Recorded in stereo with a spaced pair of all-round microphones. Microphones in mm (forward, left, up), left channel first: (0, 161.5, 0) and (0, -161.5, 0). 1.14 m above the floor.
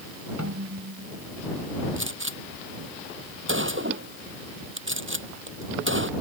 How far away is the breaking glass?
I don't hear breaking glass.